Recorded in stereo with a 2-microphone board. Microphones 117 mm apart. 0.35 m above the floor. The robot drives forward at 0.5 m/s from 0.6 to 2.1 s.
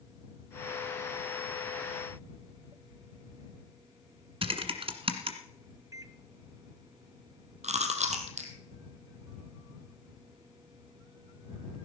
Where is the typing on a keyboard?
55° right (ahead or behind), 1.4 m.